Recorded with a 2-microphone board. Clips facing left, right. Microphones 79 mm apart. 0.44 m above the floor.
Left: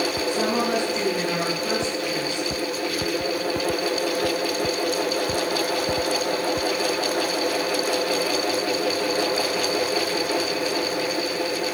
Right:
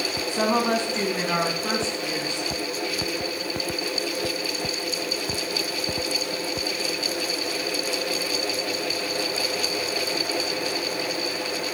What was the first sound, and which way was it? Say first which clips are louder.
A woman speaking: right 3 dB; 35° right (ahead or behind).